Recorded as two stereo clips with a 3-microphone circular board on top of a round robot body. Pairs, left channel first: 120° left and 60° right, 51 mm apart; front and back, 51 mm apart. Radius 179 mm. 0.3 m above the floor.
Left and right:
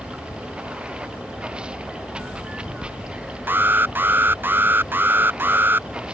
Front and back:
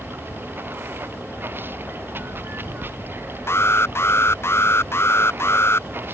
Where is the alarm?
20° right.